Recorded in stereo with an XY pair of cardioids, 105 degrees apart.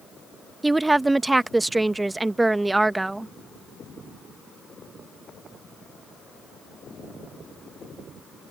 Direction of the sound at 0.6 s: 15° right.